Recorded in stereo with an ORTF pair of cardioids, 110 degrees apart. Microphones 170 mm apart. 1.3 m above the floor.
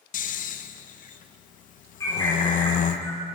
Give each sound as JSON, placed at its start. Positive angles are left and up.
{"t": 0.1, "sound": "snoring", "azimuth_deg": 55, "distance_m": 0.8}
{"t": 2.0, "sound": "a bird", "azimuth_deg": 20, "distance_m": 4.0}